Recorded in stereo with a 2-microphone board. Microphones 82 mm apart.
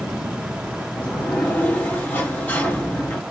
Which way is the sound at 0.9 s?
20° left (ahead or behind).